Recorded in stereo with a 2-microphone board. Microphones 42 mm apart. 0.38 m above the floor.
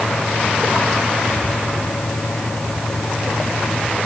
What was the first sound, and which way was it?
Only background noise.